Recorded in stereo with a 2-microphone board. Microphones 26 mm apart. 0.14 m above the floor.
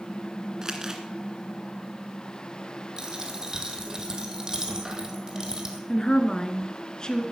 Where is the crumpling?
25° right (ahead or behind), 2.0 m.